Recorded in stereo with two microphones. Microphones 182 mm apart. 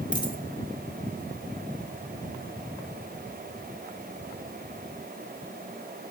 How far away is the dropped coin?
About 0.9 m.